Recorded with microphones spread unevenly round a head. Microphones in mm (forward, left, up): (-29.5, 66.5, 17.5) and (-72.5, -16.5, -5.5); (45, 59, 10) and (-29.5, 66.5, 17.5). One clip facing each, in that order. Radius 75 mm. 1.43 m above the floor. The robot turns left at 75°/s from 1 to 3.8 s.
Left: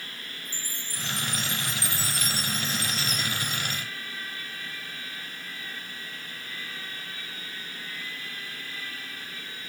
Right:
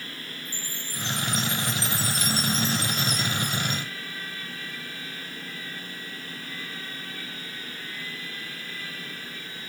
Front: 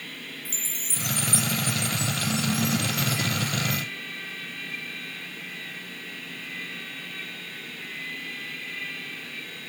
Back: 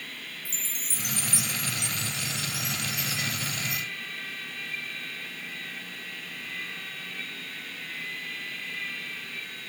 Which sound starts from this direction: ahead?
A chime, at 0.5 s.